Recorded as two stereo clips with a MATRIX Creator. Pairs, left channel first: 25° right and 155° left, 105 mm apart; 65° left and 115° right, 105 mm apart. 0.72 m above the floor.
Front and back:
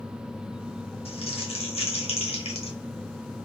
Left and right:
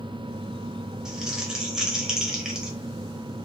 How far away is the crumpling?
About 0.9 m.